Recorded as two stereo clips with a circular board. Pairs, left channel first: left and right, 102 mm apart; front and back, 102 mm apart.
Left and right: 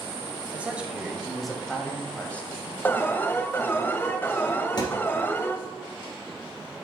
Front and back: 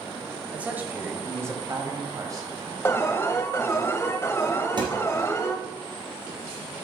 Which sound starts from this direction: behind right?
A man speaking, at 0.5 s.